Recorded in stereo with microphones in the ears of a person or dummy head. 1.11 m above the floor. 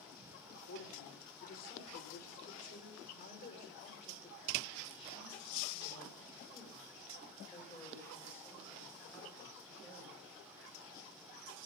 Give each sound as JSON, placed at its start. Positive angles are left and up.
{"t": 0.5, "sound": "a woman speaking", "side_deg": 60, "distance_m": 4.5}